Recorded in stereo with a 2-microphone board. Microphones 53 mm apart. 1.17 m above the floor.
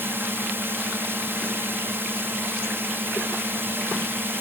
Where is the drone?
45° right (ahead or behind).